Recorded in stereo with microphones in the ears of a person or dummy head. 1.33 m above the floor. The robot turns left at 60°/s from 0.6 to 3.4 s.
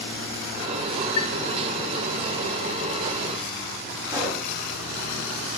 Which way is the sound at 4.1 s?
15° right (ahead or behind).